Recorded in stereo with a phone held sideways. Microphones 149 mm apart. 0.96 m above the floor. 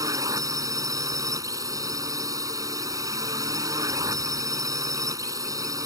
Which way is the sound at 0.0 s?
25° right (ahead or behind).